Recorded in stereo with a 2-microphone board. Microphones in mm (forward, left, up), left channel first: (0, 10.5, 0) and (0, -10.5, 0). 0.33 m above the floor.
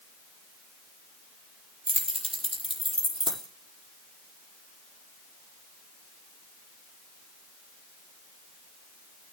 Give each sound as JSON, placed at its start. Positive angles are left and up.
{"t": 1.9, "sound": "keys jangling", "side_deg": 10, "distance_m": 6.5}